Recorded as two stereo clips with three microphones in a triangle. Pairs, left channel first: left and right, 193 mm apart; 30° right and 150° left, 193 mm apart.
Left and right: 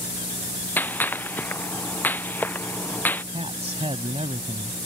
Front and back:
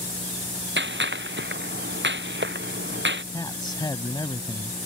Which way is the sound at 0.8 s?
170° left.